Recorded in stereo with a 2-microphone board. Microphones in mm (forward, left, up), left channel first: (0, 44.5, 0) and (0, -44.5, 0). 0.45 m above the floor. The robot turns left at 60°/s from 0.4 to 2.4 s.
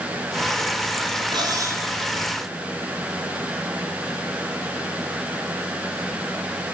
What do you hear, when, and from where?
1.3 s cutlery clinking: 125° right, 4.5 m; by 1.9 s 155° right, 4.5 m